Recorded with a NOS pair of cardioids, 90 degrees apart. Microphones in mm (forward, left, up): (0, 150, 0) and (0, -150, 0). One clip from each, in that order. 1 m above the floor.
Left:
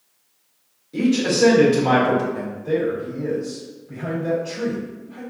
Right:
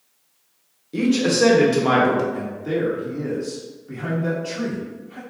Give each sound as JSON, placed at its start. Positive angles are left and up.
{"t": 0.9, "sound": "a man speaking", "azimuth_deg": -25, "distance_m": 1.0}
{"t": 2.3, "sound": "a man speaking", "azimuth_deg": -65, "distance_m": 1.4}